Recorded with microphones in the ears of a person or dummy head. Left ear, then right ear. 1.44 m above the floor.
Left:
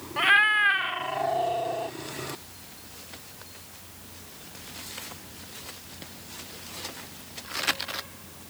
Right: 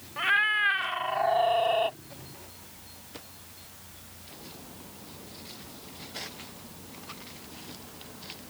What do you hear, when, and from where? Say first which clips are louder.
0.2 s a cat meowing: left 4 dB; 10° left (ahead or behind); by 2.0 s 35° right (ahead or behind)